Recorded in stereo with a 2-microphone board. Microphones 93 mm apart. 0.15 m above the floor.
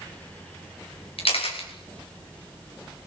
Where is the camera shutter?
85° left, 4.5 m.